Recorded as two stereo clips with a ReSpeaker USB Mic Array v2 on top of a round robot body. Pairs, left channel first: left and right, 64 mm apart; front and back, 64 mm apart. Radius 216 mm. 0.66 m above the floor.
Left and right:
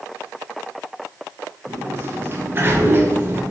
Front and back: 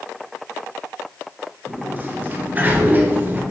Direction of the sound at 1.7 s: 130° right.